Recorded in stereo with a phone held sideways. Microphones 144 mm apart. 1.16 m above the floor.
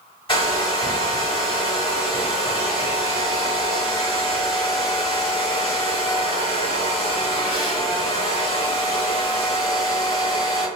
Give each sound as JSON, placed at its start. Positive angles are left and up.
{"t": 0.3, "sound": "a hair dryer", "side_deg": 35, "distance_m": 1.6}